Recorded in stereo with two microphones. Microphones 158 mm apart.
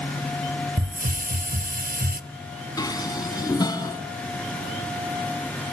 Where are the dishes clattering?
25° left (ahead or behind), 2.5 m.